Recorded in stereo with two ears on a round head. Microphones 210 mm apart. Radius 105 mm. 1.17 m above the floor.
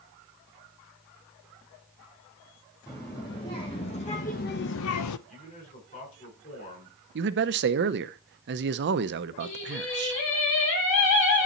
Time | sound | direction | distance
2.9 | a child speaking | 15° left (ahead or behind) | 1.9 m
5.3 | a man speaking | 35° left (ahead or behind) | 5 m
7.2 | a man speaking | 45° right (ahead or behind) | 0.6 m
9.4 | singing | 60° left (ahead or behind) | 5.5 m